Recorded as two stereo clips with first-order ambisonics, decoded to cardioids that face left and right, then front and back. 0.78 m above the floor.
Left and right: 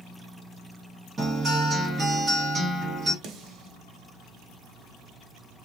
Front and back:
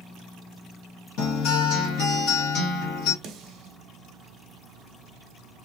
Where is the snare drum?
135° right, 1.0 m.